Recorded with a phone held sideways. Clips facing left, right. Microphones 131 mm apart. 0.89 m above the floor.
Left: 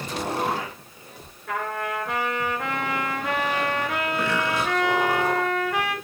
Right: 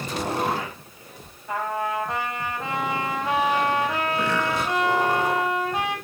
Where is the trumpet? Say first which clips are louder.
Right 2 dB; 70° left (ahead or behind), 3 m.